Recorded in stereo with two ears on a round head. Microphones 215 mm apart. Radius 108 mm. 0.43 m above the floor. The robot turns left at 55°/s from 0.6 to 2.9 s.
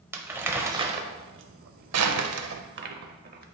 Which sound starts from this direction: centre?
Crumpling, at 0.1 s.